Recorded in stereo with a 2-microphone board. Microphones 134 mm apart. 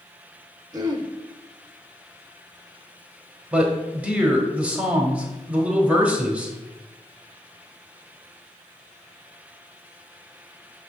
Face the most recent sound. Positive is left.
turn(degrees=-10)  # may be behind; listen again after turning